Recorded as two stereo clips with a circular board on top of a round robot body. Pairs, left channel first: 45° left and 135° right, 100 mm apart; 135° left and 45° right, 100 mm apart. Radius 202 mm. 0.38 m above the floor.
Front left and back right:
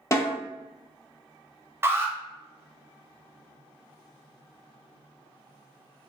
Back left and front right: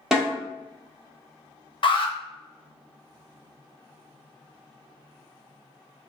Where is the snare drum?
35° left, 1.3 m.